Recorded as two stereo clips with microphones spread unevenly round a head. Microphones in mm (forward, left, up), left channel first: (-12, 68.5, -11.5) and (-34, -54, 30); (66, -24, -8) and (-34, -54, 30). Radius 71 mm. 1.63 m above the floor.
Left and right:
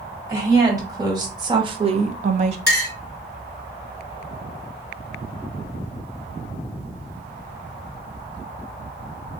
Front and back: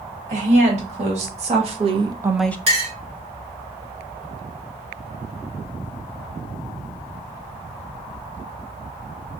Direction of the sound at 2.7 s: 160° right.